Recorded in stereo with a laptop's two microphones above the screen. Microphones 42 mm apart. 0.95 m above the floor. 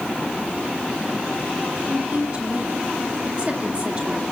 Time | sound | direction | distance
1.9 | a woman speaking | 30° right (ahead or behind) | 2 m